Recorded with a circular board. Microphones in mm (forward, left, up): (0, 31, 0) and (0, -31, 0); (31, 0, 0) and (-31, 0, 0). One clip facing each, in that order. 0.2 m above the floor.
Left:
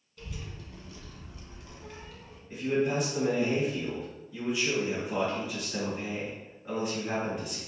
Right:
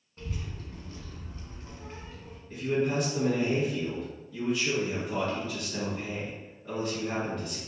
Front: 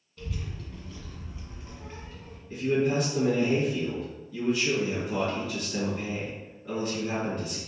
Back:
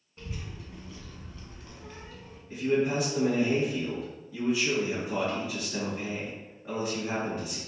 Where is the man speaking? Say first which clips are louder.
Even, front 1 dB; 145° left, 1.4 m.